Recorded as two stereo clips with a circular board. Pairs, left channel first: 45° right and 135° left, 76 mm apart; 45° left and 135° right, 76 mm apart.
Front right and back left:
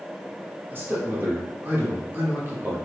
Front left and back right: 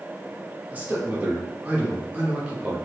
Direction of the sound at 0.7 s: 170° left.